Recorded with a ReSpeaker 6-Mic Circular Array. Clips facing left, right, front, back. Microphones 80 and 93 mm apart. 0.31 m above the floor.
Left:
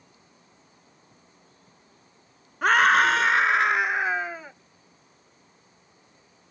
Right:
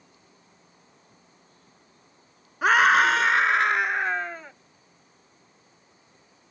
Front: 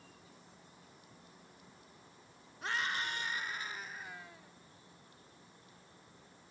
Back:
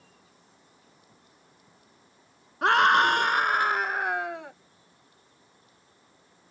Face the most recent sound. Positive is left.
turn(degrees=175)